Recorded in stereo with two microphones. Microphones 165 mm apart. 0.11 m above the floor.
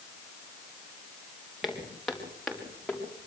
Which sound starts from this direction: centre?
Footsteps, at 1.6 s.